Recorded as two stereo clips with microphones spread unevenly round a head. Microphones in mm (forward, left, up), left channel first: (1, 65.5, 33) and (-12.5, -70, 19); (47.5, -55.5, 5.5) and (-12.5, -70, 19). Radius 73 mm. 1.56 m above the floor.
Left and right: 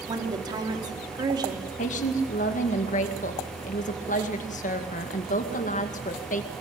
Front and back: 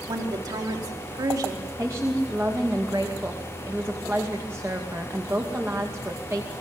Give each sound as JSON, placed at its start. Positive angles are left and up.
{"t": 0.1, "sound": "a woman speaking", "azimuth_deg": -160, "distance_m": 4.0}
{"t": 1.8, "sound": "a woman speaking", "azimuth_deg": 120, "distance_m": 2.0}